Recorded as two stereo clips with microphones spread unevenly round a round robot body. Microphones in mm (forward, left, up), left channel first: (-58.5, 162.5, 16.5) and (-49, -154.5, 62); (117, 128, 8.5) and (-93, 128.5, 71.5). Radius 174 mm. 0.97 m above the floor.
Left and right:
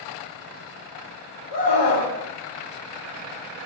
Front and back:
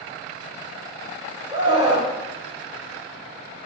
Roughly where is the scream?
Left.